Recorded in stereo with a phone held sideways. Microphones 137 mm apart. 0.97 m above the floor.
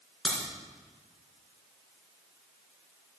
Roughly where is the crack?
Centre.